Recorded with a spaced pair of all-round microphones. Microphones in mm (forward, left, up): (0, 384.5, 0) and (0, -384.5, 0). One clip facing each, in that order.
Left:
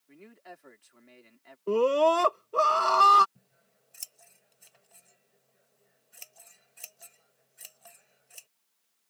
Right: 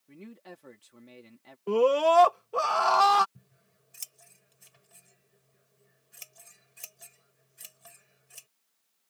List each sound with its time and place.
0.1 s a man speaking: 60° right (ahead or behind)
1.7 s a scream: 25° right (ahead or behind)
3.4 s scissors: 45° right (ahead or behind)